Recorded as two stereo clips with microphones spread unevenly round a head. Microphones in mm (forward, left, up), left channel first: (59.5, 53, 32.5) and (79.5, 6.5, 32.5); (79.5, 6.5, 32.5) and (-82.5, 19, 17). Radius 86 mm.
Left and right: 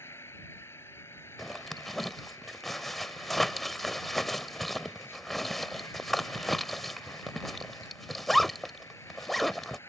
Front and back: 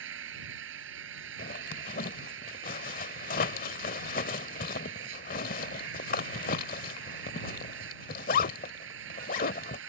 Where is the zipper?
25° left.